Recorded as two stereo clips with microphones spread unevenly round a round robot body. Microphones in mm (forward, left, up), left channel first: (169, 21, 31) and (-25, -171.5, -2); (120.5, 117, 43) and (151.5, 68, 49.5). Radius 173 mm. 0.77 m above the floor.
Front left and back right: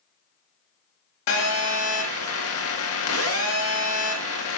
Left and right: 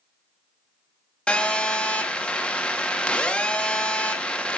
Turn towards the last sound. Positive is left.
turn(degrees=65)